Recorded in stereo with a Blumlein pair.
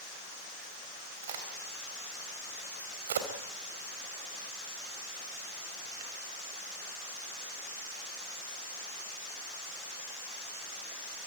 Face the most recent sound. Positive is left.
turn(degrees=-60)